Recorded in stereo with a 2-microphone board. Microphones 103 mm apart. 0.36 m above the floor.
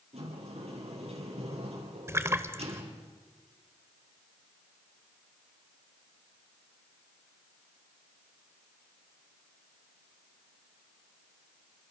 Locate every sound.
0.1 s a sliding door: 75° right (ahead or behind), 7.5 m
2.1 s a splash: 25° right (ahead or behind), 1.2 m